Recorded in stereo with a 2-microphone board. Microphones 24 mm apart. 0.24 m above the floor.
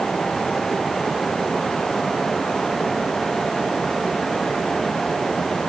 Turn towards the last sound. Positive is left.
No sound to turn to.